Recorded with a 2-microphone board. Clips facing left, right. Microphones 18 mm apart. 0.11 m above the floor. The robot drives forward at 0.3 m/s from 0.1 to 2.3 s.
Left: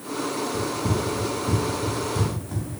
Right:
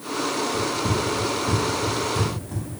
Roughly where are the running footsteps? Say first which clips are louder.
Right 2 dB; left.